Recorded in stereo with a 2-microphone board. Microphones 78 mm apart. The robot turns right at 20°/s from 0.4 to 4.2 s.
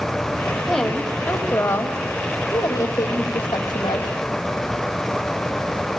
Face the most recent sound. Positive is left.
turn(degrees=75)